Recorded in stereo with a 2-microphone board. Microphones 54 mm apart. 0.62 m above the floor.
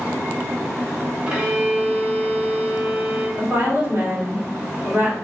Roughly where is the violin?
Right.